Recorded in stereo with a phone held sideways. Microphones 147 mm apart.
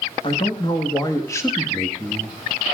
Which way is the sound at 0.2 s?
35° left (ahead or behind).